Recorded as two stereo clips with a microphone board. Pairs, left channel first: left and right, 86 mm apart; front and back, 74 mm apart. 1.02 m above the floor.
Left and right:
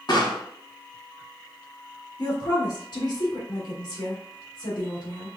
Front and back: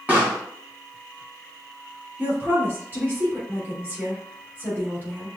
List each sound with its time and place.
0.1 s a pop: 115° left, 1.9 m
2.2 s a woman speaking: 120° left, 2.5 m